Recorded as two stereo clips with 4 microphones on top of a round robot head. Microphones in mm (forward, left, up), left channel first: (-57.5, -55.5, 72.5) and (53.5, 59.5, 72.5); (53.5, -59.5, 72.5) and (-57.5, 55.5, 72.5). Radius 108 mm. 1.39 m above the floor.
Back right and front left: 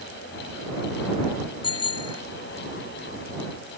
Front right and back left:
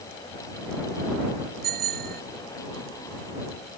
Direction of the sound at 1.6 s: 165° left.